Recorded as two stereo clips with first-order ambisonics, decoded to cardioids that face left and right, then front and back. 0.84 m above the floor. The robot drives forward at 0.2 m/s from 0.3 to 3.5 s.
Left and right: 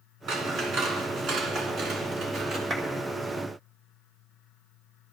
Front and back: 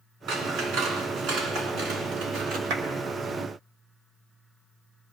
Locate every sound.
0.3 s scissors: 140° right, 2.5 m; by 2.6 s 145° right, 3 m
2.7 s a clap: 165° right, 1.9 m